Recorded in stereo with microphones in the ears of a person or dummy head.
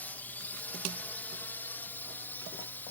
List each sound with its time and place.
0.0 s a drone: 10° left (ahead or behind)